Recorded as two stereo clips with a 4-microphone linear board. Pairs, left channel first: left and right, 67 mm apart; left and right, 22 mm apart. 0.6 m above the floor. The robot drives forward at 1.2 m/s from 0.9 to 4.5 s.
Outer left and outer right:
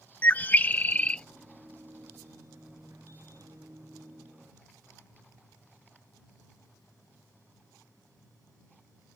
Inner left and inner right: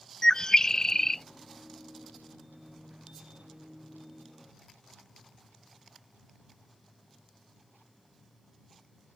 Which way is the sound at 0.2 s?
25° left (ahead or behind).